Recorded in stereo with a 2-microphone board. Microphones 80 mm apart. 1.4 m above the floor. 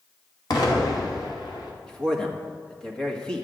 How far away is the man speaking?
About 1.8 m.